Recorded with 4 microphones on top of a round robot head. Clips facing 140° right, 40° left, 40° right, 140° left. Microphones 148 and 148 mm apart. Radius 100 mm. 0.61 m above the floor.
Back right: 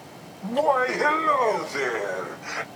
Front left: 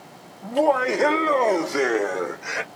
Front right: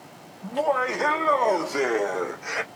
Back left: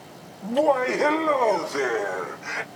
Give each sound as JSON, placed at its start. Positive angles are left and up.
{"t": 0.4, "sound": "laughter", "azimuth_deg": 115, "distance_m": 1.1}